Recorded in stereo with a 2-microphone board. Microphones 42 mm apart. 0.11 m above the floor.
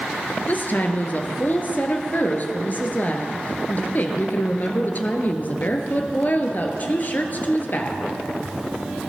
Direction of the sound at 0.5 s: 45° left (ahead or behind).